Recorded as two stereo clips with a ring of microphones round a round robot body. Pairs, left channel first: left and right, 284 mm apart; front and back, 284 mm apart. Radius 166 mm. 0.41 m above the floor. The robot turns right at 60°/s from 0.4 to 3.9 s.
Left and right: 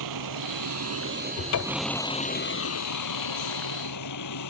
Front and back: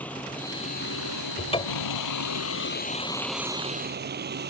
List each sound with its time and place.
0.0 s a vehicle: 85° right; by 4.5 s 125° left
1.4 s a cupboard door: 60° left; by 2.0 s 100° left